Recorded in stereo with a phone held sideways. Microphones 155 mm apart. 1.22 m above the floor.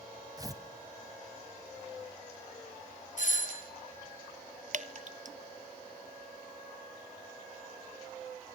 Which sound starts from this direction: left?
A doorbell, at 3.2 s.